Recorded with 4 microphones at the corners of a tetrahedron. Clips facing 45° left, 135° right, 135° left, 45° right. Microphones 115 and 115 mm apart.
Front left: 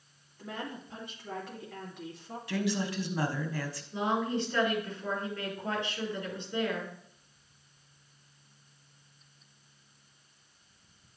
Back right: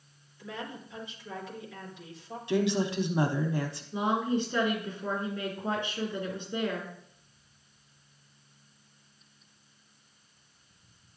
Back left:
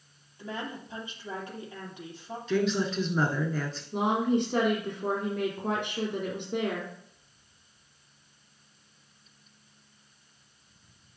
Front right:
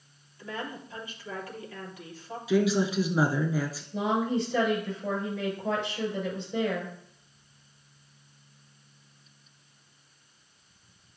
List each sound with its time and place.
0.4 s a woman speaking: 70° left, 3 m
2.5 s a woman speaking: 110° right, 1.1 m
3.9 s a woman speaking: 150° left, 4 m